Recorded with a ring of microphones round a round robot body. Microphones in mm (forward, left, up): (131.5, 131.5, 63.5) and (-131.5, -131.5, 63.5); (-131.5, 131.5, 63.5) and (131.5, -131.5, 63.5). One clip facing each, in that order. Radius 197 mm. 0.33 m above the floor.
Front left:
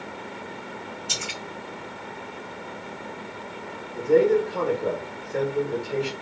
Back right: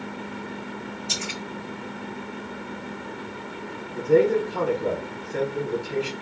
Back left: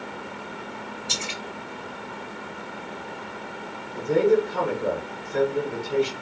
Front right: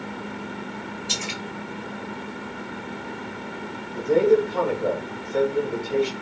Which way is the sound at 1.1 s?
15° left.